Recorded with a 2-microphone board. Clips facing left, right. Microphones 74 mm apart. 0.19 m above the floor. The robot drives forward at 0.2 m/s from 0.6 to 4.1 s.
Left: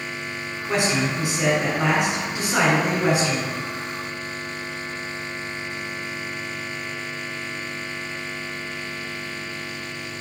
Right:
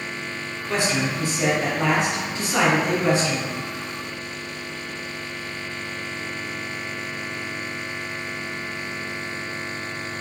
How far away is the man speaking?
About 1.5 m.